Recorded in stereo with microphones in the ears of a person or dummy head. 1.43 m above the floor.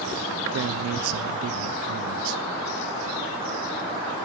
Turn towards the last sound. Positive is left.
turn(degrees=-70)  # may be behind; listen again after turning